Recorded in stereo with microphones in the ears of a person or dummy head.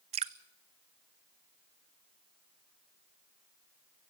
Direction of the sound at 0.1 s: 35° right (ahead or behind).